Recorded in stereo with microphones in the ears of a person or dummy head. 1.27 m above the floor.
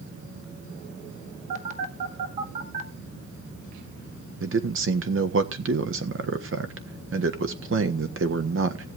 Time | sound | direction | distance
1.5 | a phone buzzing | 50° right (ahead or behind) | 1.8 m
4.4 | a man speaking | 65° right (ahead or behind) | 1.3 m